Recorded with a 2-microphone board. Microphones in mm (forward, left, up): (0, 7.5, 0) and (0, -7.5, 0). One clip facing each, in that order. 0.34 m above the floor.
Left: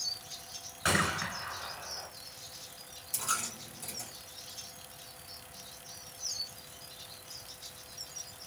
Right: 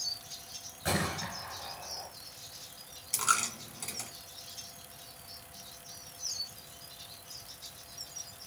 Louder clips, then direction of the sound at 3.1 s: Right 5 dB; 55° right (ahead or behind).